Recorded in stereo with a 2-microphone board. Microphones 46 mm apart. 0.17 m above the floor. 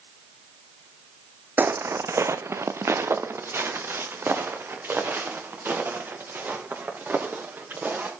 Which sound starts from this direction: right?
Footsteps, at 1.6 s.